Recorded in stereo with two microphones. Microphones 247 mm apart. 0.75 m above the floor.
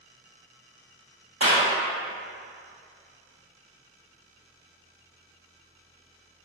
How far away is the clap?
About 1.8 m.